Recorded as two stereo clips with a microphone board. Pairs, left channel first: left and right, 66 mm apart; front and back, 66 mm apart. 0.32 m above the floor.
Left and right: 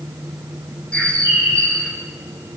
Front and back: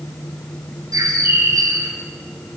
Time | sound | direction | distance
0.9 | a bird | 160° left | 4 m